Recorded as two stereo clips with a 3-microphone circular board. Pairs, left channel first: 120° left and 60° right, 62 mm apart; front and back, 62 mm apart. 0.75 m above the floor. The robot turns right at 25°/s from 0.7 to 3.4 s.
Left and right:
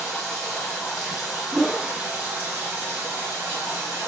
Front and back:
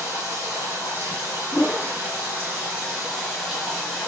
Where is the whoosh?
20° left, 0.6 m; by 1.9 s 30° left, 0.6 m.